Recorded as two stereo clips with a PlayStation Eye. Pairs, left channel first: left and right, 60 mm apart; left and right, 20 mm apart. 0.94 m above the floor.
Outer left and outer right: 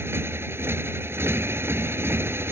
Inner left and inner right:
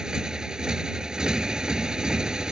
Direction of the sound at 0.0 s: 40° right (ahead or behind).